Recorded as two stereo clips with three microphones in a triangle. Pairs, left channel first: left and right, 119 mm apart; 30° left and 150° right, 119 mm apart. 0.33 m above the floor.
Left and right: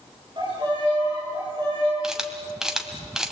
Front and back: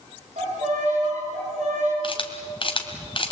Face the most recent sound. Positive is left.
turn(degrees=-5)